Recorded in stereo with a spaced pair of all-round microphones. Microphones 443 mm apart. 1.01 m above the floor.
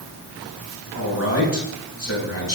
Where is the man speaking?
30° left (ahead or behind), 7.5 m.